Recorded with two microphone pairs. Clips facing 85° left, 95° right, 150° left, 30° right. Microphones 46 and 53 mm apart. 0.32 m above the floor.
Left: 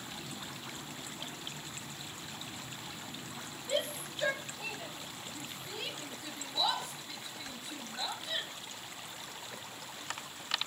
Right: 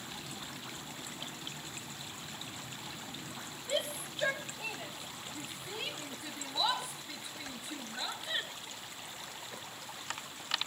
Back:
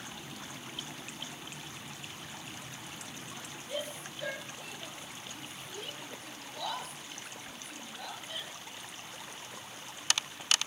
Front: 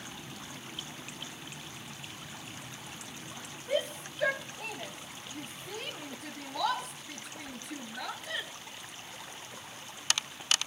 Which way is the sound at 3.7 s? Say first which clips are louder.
Left 1 dB, front 7 dB; 10° right.